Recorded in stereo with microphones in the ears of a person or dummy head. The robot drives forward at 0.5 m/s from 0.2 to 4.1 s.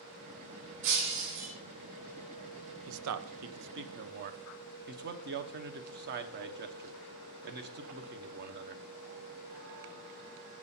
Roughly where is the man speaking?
Right.